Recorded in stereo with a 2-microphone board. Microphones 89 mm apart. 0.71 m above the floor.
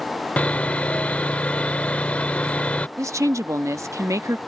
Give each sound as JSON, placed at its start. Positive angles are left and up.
{"t": 0.4, "sound": "sawing", "side_deg": 15}
{"t": 3.0, "sound": "a woman speaking", "side_deg": -35}